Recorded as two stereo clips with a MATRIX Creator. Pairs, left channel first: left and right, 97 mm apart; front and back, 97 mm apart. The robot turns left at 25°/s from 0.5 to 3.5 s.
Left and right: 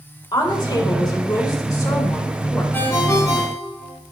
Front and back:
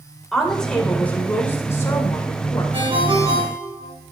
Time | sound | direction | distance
0.3 | a woman speaking | 85° left | 1.8 m
2.7 | a ringtone | 160° left | 2 m